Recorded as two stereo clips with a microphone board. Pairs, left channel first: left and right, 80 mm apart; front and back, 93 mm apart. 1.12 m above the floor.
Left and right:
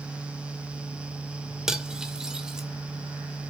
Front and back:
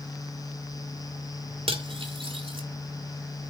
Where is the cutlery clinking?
170° right, 2 m.